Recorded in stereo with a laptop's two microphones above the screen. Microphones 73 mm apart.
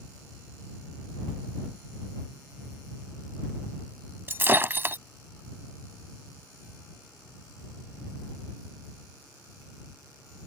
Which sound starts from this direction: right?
Breaking glass, at 4.3 s.